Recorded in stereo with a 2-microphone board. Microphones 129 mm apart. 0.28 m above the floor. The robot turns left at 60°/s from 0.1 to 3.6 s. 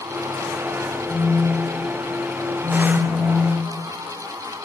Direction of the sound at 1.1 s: Straight ahead.